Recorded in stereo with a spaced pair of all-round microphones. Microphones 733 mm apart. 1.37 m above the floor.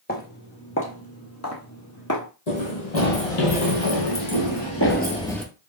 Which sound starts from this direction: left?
Running footsteps, at 2.5 s.